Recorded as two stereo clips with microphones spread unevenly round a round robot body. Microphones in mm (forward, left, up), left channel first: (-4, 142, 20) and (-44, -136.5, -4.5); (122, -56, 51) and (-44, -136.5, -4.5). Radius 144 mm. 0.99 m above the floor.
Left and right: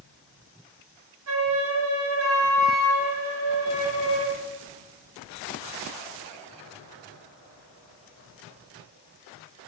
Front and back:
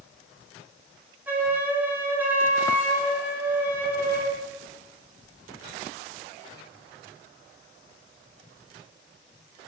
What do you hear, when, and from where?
1.3 s a flute: 90° right, 1.3 m